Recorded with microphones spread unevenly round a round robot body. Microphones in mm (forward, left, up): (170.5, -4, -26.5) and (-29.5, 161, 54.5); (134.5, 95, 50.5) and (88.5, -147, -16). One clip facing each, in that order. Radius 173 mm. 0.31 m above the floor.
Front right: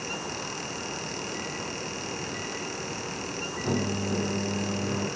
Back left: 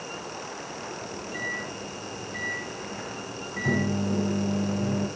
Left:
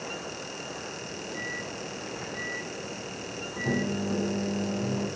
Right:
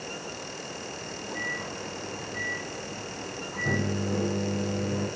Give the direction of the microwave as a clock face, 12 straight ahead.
6 o'clock.